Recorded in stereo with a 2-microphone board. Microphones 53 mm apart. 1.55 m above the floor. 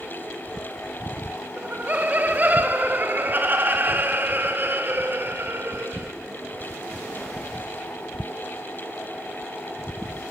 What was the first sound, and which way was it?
Laughter, 35° right (ahead or behind).